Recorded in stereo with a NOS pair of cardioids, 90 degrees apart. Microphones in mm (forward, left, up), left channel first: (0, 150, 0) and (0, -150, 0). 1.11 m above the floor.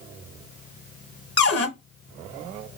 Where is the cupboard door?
40° left, 0.8 m.